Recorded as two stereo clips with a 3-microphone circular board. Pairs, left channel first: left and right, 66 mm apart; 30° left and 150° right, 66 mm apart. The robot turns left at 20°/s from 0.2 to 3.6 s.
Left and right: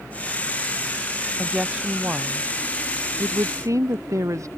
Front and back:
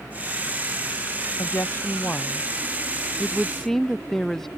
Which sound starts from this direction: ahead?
A woman speaking, at 1.4 s.